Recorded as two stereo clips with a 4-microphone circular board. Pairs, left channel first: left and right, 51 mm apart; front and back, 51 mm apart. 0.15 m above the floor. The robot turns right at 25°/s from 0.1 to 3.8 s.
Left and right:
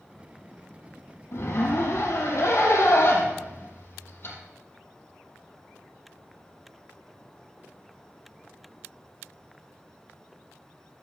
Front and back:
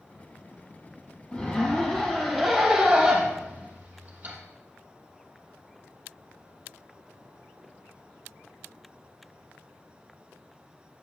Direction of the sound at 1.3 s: 65° left.